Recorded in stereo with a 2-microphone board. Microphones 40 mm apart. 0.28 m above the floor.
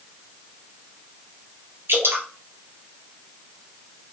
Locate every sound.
1.9 s dripping: 75° right (ahead or behind), 1.6 m